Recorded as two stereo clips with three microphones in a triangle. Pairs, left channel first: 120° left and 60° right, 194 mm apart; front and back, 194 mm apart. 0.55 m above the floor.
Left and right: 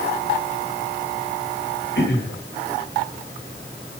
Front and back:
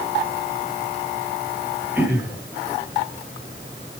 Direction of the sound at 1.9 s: 100° left.